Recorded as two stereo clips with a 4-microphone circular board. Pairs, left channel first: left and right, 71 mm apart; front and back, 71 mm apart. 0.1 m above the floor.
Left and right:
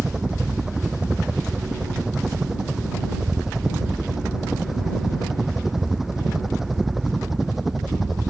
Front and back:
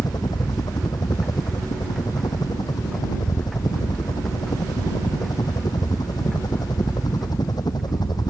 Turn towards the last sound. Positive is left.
turn(degrees=-5)